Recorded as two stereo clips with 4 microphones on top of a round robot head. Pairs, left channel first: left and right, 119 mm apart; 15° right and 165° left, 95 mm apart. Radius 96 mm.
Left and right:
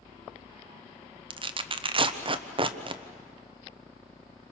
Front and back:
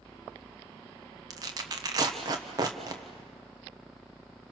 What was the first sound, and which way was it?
Tearing paper, 135° right.